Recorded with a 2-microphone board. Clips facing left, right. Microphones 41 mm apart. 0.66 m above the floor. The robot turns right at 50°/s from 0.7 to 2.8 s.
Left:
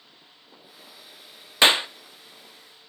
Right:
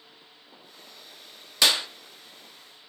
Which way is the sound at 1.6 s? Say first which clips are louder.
Left 5 dB; 30° left (ahead or behind).